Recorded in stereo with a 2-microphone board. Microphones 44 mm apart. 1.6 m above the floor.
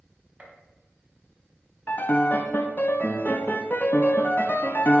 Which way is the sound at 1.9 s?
45° left (ahead or behind).